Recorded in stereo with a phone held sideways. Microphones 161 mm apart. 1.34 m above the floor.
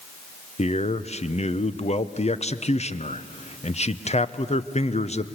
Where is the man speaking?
40° left (ahead or behind), 0.9 m.